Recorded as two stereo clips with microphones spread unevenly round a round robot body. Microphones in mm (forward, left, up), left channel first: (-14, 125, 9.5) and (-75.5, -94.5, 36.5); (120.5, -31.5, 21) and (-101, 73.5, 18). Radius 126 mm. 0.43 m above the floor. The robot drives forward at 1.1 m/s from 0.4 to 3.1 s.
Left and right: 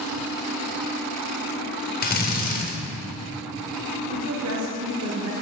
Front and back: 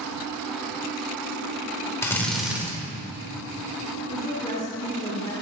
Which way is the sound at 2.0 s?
50° left.